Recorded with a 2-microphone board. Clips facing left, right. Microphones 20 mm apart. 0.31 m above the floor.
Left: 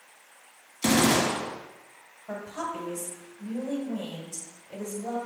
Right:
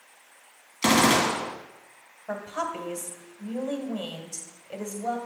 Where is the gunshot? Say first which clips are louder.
Right 2 dB; 50° right (ahead or behind), 1.3 m.